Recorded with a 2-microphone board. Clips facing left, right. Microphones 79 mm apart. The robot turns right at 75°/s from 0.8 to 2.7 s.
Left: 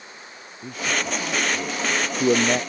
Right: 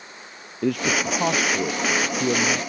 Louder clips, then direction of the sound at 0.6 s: Right 5 dB; 90° right.